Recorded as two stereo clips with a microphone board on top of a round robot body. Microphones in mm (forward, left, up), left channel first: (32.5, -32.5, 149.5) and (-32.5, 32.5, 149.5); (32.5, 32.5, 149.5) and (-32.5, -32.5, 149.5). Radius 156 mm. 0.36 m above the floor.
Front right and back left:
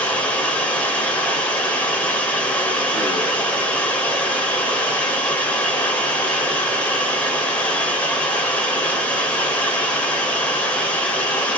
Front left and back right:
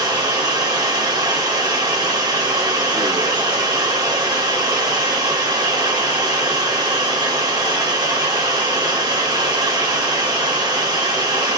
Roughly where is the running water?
Behind right.